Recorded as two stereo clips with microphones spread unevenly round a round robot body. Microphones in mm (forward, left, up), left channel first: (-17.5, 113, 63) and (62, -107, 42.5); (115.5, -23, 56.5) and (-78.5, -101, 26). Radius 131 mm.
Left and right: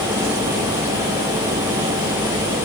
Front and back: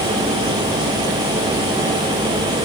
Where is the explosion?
No explosion in this recording.